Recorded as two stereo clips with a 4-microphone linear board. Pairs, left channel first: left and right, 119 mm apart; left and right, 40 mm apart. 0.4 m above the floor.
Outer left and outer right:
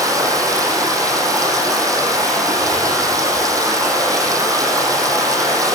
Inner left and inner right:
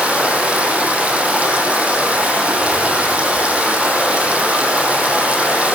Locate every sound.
0.0 s running water: 30° right (ahead or behind), 7.5 m